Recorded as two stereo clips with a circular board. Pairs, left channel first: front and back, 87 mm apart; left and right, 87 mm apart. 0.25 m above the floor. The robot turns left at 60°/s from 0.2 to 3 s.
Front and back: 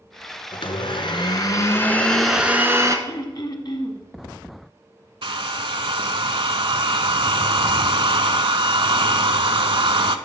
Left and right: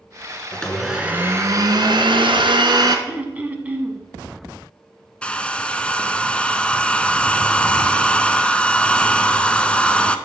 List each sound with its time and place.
0.5 s a blender: 15° left, 1.1 m; by 3.0 s 130° right, 1.1 m
3.1 s throat clearing: 20° right, 0.9 m
5.2 s a hair dryer: 165° left, 0.5 m